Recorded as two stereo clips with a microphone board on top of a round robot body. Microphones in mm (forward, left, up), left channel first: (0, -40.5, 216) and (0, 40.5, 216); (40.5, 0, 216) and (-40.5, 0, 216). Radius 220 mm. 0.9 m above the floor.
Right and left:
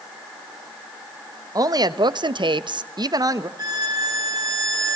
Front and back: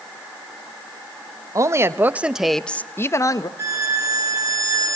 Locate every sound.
1.6 s a woman speaking: 130° left, 1.7 m; by 3.5 s 40° left, 1.7 m
3.6 s a violin: 130° left, 4.5 m